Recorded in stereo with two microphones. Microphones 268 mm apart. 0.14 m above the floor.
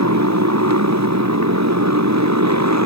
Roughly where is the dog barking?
I don't hear a dog barking.